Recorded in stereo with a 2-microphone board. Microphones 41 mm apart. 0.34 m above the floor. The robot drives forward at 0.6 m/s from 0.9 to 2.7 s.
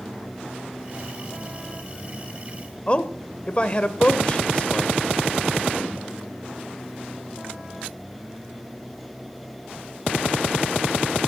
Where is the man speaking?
30° left (ahead or behind), 1.0 m.